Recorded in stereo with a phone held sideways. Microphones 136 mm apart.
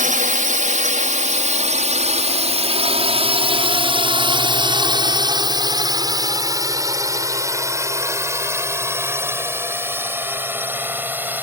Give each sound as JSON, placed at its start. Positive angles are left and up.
{"t": 0.0, "sound": "a drone", "side_deg": -70}